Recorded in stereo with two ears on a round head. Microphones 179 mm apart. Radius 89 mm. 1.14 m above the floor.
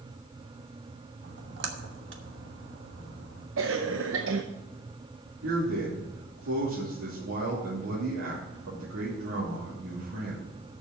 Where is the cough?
70° right (ahead or behind), 0.7 m.